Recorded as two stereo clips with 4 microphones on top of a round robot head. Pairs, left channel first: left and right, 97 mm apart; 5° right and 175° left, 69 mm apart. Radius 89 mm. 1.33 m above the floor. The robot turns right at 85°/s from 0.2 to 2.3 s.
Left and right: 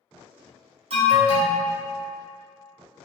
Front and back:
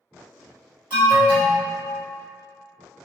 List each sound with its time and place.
0.9 s an alarm: 115° right, 1.5 m; by 1.6 s 55° right, 1.5 m